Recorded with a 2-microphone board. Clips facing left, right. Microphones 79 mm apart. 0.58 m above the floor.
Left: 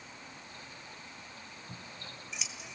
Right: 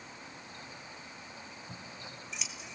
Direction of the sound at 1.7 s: Centre (ahead or behind).